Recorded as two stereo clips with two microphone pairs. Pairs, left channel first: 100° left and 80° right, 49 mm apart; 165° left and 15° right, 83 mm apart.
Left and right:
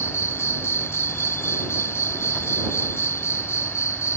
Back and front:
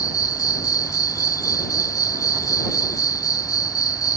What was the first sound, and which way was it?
An insect, 125° left.